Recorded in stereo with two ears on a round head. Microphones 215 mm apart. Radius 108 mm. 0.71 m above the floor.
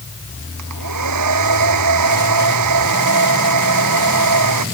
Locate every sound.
0.6 s a hair dryer: 85° right